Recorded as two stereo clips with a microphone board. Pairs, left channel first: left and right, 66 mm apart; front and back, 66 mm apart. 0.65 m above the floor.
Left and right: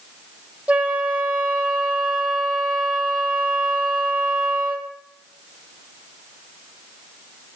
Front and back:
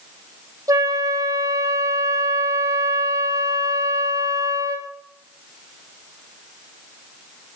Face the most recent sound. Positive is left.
turn(degrees=-155)